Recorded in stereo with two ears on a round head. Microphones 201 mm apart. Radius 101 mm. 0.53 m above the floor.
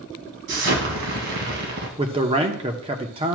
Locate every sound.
0.5 s an explosion: 55° right (ahead or behind), 1.6 m
2.0 s a man speaking: 25° right (ahead or behind), 0.8 m